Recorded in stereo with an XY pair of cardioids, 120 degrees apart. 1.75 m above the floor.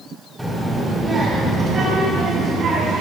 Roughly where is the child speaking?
Ahead.